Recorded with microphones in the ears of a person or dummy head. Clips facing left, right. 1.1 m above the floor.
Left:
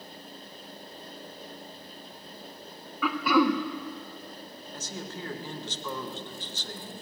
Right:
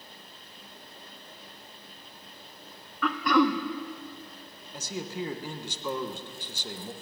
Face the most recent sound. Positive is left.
turn(degrees=-10)  # may be behind; listen again after turning